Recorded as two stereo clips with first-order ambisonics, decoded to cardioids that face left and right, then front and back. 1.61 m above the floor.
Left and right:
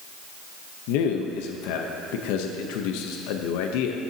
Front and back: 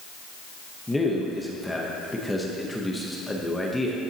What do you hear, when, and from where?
0.9 s a man speaking: 85° left, 0.9 m